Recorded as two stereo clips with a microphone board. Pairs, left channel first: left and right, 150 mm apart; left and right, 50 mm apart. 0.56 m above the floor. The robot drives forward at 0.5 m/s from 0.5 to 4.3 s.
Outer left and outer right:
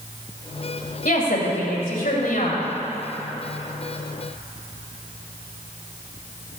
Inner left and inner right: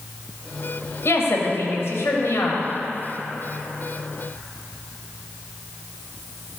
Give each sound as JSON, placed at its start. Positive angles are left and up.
{"t": 1.1, "sound": "a woman speaking", "side_deg": 70, "distance_m": 2.5}